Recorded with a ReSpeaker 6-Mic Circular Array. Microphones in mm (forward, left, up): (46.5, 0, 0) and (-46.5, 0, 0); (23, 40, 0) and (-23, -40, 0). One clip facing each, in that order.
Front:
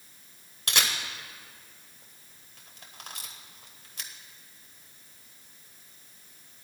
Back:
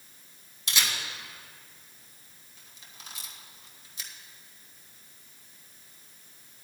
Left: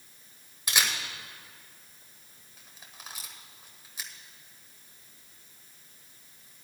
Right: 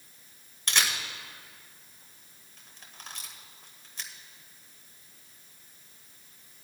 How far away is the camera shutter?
About 1.6 m.